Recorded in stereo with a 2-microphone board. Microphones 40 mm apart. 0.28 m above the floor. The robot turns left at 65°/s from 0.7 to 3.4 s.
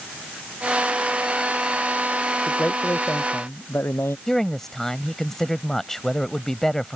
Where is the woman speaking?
10° left (ahead or behind).